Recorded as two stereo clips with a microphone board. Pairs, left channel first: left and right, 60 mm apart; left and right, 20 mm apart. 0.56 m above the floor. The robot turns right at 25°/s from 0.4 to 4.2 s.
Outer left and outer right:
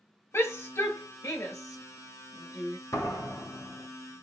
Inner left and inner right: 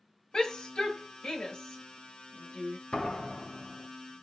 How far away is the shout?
About 2 m.